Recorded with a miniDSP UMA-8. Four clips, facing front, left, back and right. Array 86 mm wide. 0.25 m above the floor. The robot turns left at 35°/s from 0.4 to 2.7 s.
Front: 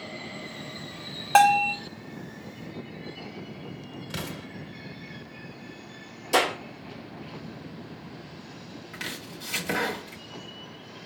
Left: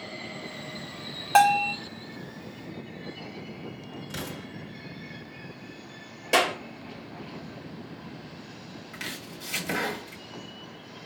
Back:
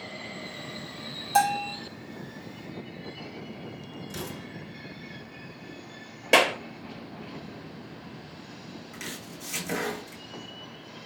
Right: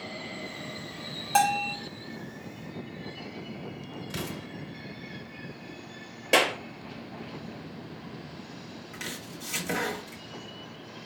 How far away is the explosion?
About 1.7 m.